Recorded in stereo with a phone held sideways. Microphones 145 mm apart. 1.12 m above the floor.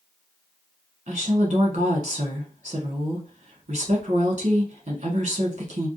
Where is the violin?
No violin in this recording.